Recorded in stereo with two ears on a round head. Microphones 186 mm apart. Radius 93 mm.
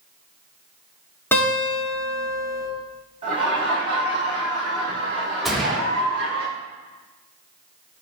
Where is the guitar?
10° left (ahead or behind), 3 m.